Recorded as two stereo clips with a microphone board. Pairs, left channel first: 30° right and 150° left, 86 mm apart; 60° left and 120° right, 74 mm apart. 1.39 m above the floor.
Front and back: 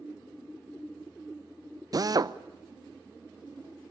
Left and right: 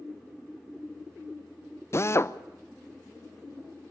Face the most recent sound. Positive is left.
turn(degrees=110)